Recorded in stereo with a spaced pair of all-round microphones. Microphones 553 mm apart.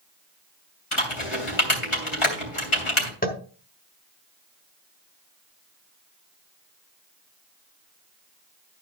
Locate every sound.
0.9 s typing on a keyboard: 60° left (ahead or behind), 3 m
3.2 s tapping: 15° left (ahead or behind), 1.4 m